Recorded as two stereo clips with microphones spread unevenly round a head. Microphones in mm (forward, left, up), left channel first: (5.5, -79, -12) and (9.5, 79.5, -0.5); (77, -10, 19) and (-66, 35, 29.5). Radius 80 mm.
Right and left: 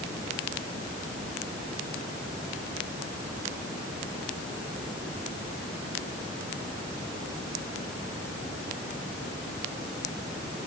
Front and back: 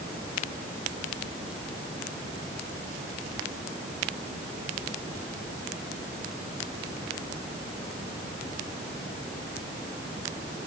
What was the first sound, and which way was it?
Only background noise.